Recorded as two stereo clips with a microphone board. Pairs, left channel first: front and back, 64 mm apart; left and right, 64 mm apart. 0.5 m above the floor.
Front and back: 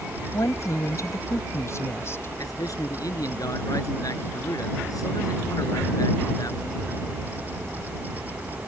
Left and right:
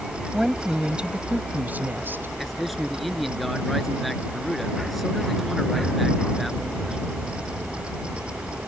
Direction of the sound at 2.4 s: Straight ahead.